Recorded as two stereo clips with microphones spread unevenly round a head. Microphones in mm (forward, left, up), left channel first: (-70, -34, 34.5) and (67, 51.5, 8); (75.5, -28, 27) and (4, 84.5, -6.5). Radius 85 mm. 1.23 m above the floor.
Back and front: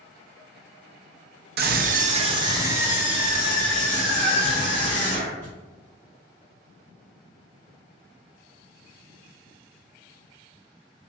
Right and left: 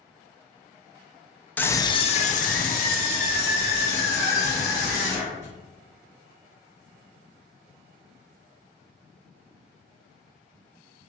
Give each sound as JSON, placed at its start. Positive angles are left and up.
{"t": 1.6, "sound": "a scream", "azimuth_deg": 30, "distance_m": 0.6}